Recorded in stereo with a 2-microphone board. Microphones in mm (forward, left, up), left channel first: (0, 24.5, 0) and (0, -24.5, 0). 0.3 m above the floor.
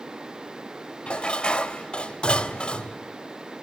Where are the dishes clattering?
20° left (ahead or behind), 0.7 m.